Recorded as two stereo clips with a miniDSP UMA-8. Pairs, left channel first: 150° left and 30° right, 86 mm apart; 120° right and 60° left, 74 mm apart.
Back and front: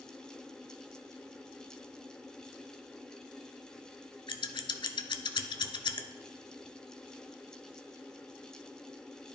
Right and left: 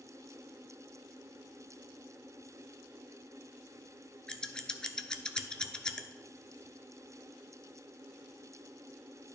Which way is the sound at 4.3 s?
160° left.